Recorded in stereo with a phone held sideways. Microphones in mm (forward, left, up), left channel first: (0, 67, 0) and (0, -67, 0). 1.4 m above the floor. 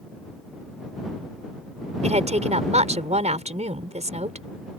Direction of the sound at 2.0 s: 55° right (ahead or behind).